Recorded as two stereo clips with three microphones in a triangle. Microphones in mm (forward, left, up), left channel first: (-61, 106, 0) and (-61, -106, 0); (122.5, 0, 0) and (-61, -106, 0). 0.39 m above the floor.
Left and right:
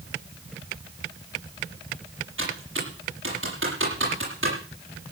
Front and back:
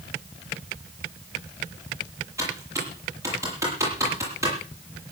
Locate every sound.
2.4 s typing on a keyboard: 75° right, 9 m